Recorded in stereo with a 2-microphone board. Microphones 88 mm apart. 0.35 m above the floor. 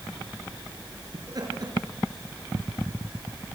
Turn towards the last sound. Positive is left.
turn(degrees=-50)  # may be behind; listen again after turning